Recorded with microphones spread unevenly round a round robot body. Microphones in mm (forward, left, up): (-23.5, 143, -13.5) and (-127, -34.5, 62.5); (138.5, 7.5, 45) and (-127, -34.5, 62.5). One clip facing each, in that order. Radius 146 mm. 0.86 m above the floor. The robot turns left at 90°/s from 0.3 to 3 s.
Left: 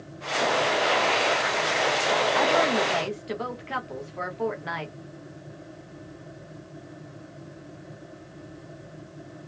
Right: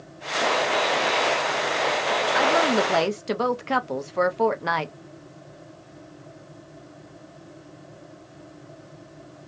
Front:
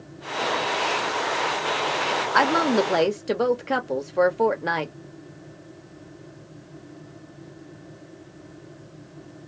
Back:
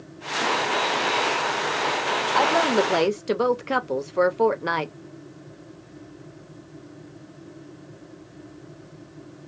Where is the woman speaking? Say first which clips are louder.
Right 4 dB, front 1 dB; 30° right, 0.6 m; by 4.9 s 85° right, 0.6 m.